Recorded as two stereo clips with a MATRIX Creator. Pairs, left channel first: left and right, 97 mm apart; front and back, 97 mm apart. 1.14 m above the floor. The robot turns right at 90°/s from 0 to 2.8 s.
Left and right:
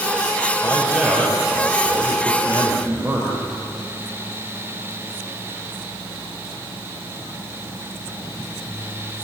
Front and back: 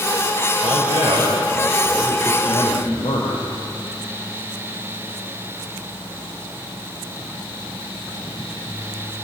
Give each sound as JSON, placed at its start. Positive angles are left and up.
{"t": 0.6, "sound": "a man speaking", "azimuth_deg": 150, "distance_m": 4.0}